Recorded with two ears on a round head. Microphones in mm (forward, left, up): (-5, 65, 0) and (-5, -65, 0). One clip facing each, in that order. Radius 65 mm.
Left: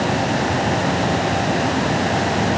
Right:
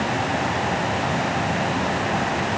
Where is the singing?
No singing in this recording.